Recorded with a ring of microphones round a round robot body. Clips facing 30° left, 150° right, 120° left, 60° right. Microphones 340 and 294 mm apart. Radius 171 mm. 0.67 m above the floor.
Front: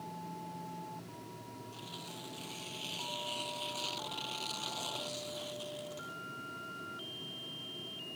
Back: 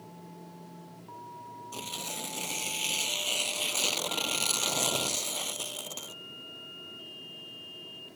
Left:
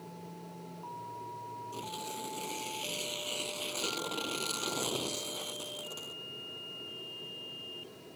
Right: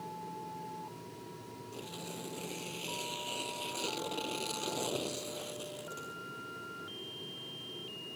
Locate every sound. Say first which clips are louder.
1.7 s tearing paper: back 6 dB, left 1 dB; 155° right